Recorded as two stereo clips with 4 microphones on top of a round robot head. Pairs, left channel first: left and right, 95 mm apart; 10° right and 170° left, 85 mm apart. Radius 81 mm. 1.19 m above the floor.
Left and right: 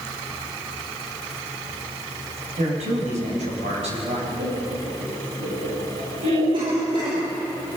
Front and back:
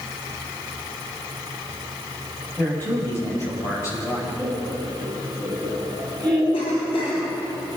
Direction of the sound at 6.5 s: 40° right.